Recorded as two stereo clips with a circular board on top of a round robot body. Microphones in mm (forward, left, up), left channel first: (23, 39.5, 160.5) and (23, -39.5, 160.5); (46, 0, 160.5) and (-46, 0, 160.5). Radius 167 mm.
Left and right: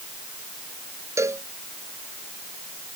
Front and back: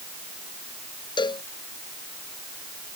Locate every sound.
1.2 s a cowbell: 35° right